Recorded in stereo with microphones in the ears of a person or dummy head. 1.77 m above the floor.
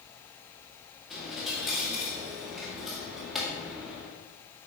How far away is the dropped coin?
About 1.9 m.